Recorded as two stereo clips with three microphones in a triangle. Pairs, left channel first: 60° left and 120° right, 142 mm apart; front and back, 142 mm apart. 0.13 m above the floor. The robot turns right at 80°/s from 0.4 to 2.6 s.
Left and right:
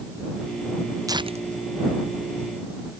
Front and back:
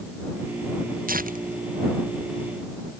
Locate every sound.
1.1 s tearing paper: 175° left; by 2.5 s 70° right